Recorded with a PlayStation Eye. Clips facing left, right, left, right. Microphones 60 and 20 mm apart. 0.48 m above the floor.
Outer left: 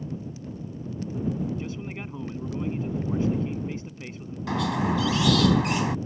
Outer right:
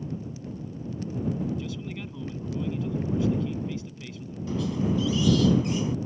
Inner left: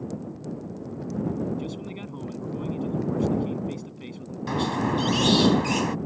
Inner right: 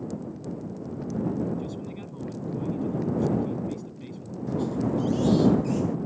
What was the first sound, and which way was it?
A man speaking, 30° left (ahead or behind).